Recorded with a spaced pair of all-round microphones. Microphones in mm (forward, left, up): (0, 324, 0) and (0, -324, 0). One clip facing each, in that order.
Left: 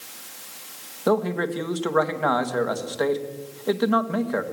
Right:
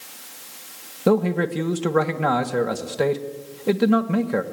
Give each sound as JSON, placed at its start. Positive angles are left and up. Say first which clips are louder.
{"t": 1.1, "sound": "a man speaking", "louder": "right 3 dB", "side_deg": -50, "distance_m": 1.7}